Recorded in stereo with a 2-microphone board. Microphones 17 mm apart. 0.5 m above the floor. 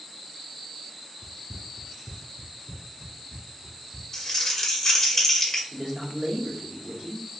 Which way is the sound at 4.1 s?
20° left (ahead or behind).